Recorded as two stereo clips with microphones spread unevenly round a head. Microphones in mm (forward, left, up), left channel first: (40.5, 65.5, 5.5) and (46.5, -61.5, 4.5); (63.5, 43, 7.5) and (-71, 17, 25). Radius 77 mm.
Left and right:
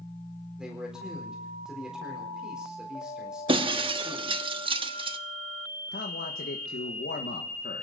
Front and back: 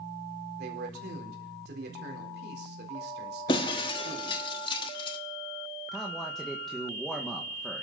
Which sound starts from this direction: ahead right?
Breaking glass, at 3.5 s.